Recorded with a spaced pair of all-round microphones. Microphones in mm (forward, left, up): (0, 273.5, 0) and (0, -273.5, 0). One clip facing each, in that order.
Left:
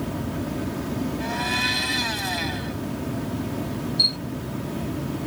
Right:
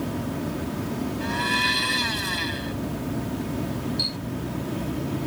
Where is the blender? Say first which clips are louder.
Even; 10° left (ahead or behind).